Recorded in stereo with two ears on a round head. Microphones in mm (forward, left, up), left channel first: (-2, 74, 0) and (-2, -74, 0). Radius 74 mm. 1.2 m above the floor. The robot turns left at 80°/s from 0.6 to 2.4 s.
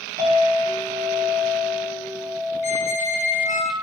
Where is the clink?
10° right, 1.8 m; by 3.6 s 155° right, 1.8 m.